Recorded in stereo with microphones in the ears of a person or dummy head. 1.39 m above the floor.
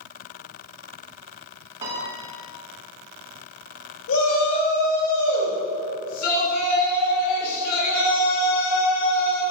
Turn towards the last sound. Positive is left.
turn(degrees=75)  # may be behind; listen again after turning